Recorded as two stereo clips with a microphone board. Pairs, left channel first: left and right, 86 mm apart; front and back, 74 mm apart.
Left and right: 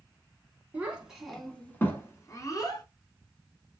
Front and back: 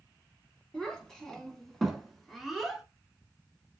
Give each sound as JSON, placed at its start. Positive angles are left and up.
{"t": 0.7, "sound": "a child speaking", "azimuth_deg": -70, "distance_m": 0.9}